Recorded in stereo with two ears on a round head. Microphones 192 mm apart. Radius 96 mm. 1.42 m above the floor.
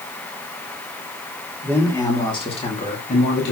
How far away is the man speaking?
About 3 m.